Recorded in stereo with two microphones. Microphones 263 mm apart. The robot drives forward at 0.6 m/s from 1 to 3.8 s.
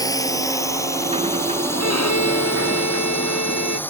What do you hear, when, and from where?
0.0 s a drone: 10° left (ahead or behind); by 3.9 s 5° left (ahead or behind)
1.8 s a violin: 70° left (ahead or behind); by 3.8 s 75° left (ahead or behind)